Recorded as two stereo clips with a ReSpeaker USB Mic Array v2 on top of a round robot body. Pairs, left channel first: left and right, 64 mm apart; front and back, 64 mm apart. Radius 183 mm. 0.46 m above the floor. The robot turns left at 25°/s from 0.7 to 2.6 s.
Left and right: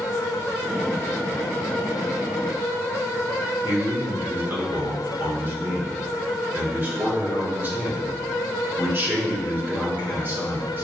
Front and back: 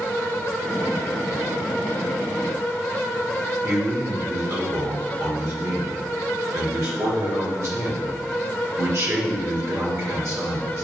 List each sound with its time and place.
3.6 s a man speaking: 140° right, 3 m